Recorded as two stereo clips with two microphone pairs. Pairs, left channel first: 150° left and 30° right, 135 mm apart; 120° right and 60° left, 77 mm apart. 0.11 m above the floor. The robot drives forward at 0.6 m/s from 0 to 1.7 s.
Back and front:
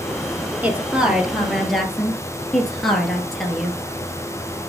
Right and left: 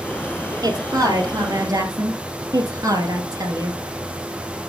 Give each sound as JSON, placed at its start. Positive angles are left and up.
{"t": 0.6, "sound": "a woman speaking", "azimuth_deg": 45, "distance_m": 2.5}